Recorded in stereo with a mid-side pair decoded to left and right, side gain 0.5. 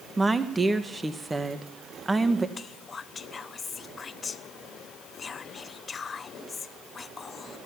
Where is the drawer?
I don't hear a drawer.